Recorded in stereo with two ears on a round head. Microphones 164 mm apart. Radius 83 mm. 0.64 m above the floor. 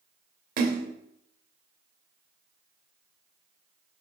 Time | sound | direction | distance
0.6 | a splash | 55° right (ahead or behind) | 2 m